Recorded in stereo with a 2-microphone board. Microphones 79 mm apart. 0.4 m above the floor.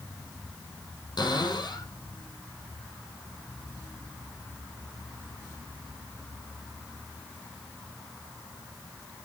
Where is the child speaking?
No child speaking in this recording.